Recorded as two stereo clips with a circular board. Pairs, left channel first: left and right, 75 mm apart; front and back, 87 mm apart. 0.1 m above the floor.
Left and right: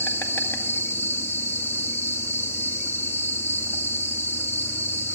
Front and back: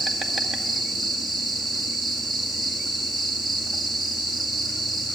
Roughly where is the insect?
Left.